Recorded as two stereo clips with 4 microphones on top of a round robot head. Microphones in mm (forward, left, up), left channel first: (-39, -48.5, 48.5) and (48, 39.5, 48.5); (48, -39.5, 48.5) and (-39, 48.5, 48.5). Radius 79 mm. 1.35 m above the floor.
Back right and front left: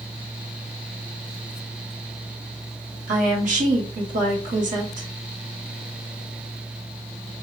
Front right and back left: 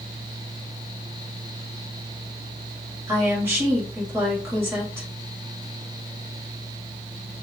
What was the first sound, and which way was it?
A woman speaking, 65° left.